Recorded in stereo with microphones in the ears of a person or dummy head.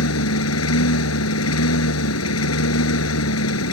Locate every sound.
0.0 s a lawn mower: 80° left